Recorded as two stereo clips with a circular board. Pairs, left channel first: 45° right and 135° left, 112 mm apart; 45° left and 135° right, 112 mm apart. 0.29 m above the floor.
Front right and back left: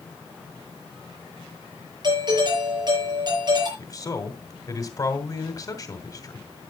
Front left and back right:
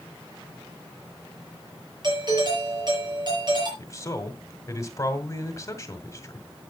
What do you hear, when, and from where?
2.0 s a doorbell: straight behind, 7 m
3.8 s a man speaking: 5° right, 2 m